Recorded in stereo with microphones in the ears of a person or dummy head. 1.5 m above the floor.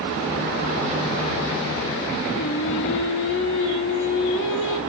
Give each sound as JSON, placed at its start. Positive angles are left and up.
{"t": 2.3, "sound": "singing", "side_deg": 65, "distance_m": 1.4}